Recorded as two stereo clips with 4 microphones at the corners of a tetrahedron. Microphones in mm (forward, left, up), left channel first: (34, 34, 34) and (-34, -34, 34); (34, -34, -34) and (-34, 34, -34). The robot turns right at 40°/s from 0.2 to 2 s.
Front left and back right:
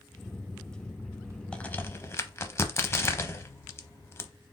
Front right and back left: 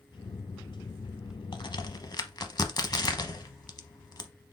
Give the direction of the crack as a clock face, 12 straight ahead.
1 o'clock.